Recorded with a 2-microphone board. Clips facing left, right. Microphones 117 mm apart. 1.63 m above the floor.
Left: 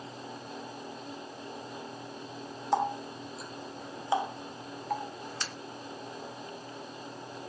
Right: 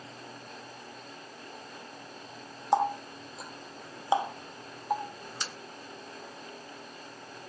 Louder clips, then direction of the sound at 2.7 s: Right 3 dB; 20° right (ahead or behind).